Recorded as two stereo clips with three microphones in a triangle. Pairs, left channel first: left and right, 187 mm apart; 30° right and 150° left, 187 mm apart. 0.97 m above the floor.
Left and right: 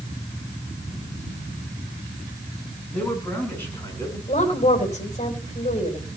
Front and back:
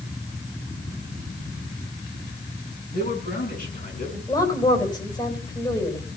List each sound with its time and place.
2.9 s a man speaking: 10° left, 7.5 m; by 4.2 s 15° left, 7.5 m
4.3 s a woman speaking: 40° left, 4.5 m